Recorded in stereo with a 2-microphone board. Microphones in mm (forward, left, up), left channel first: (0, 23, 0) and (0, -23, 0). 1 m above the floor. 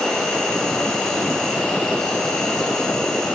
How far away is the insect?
About 6.5 m.